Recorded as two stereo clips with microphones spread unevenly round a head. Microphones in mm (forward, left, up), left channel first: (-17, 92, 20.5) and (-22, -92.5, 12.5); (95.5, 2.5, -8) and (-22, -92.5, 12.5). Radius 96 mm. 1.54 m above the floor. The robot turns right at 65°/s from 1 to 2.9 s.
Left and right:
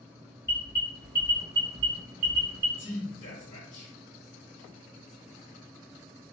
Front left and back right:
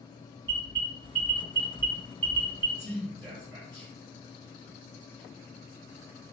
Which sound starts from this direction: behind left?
A man speaking, at 2.8 s.